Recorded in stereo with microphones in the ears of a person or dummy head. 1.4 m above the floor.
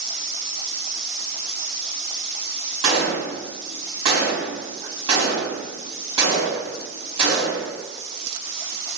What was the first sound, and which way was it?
A gunshot, 30° right (ahead or behind).